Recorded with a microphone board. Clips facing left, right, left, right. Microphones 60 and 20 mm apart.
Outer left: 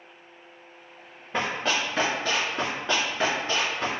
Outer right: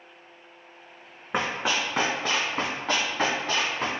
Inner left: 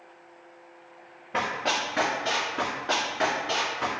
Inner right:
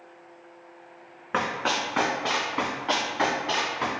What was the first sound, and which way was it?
Running footsteps, 70° right (ahead or behind).